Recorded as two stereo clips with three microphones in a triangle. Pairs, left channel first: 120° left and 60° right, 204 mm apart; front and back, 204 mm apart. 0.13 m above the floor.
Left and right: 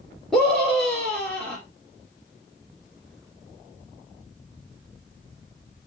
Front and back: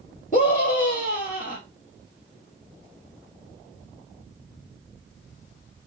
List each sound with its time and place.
0.3 s a scream: 30° left, 1.9 m